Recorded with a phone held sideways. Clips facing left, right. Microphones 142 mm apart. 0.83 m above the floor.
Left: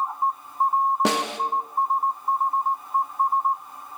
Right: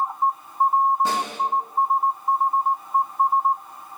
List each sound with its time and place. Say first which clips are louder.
1.1 s a snare drum: left 2 dB; 80° left, 0.6 m